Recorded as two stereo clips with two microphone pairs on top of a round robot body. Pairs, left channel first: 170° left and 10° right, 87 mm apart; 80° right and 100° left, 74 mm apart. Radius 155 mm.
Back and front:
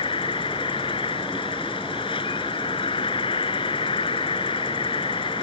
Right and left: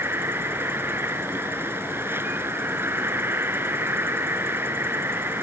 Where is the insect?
160° left.